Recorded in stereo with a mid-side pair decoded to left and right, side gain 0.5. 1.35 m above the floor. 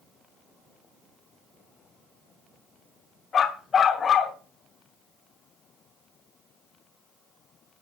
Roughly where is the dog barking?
Ahead left.